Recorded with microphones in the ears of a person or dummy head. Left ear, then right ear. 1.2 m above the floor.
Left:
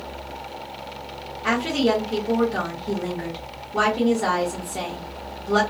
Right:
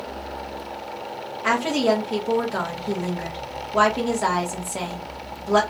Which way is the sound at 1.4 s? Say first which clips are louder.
Right 1 dB; 20° right (ahead or behind).